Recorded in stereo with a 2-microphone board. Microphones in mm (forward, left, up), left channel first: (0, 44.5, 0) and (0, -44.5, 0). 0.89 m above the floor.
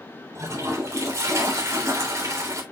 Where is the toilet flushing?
35° right (ahead or behind), 3.5 m.